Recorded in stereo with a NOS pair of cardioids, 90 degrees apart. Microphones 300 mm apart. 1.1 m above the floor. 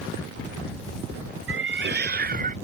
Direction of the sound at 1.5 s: 45° right.